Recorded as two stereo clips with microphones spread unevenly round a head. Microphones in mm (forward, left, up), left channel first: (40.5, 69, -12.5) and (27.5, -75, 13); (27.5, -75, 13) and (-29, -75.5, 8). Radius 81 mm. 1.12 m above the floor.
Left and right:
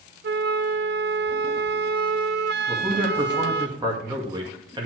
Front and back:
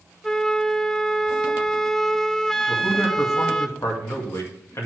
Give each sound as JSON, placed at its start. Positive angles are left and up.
{"t": 0.2, "sound": "a flute", "azimuth_deg": -85, "distance_m": 0.6}
{"t": 2.7, "sound": "a man speaking", "azimuth_deg": -30, "distance_m": 2.0}